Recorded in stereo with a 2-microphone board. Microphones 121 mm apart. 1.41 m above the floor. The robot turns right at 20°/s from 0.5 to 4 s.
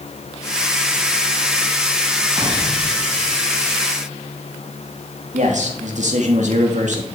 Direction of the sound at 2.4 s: 45° right (ahead or behind).